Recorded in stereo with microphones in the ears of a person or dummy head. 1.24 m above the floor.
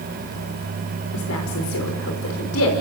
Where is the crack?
No crack in this recording.